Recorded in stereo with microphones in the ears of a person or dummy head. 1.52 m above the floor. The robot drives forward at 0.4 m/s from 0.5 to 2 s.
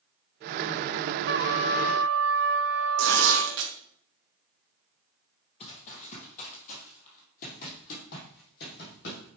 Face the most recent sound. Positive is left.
turn(degrees=60)  # may be behind; listen again after turning